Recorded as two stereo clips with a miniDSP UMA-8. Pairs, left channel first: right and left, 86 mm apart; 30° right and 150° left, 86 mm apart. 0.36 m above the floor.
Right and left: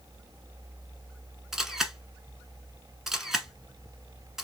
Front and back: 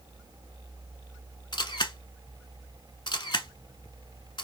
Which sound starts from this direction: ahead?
A camera shutter, at 1.5 s.